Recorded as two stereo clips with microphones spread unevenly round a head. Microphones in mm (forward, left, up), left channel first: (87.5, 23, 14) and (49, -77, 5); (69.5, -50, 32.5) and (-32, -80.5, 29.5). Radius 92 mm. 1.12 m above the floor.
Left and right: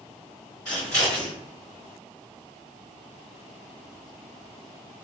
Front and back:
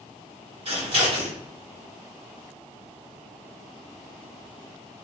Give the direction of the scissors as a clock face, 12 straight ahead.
7 o'clock.